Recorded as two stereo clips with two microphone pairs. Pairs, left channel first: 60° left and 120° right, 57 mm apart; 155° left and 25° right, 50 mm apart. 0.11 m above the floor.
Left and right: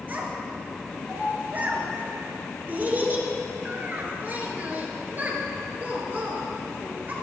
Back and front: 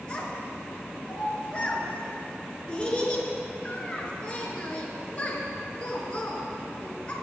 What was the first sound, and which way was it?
A child speaking, 150° right.